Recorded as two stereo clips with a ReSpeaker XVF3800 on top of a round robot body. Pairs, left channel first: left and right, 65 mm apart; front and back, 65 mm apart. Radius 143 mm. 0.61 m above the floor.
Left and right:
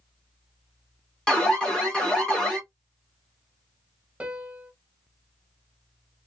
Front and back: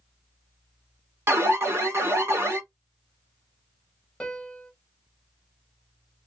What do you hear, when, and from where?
1.3 s an alarm: 160° left, 1.3 m
4.2 s a piano: 55° right, 1.0 m